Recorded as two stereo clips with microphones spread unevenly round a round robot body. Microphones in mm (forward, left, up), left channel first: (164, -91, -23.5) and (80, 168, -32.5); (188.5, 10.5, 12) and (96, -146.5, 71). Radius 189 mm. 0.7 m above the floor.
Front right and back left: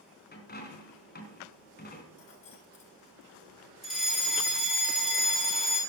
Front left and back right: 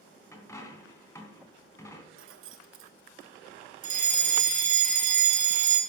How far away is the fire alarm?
About 1.7 m.